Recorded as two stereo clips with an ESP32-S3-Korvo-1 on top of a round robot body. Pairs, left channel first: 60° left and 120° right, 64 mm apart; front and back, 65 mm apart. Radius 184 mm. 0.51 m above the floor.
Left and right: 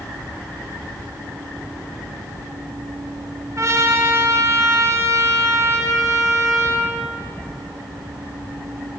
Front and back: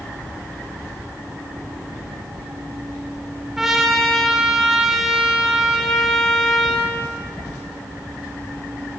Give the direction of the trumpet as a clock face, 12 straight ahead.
3 o'clock.